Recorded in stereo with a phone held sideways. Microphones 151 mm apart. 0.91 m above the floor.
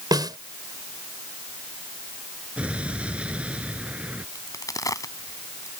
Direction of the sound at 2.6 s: 10° right (ahead or behind).